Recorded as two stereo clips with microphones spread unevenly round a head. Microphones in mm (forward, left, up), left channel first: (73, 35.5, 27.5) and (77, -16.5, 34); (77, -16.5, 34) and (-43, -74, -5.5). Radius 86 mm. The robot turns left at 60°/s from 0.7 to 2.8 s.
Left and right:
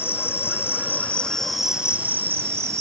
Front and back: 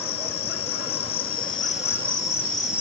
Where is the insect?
55° left; by 2.8 s 75° right.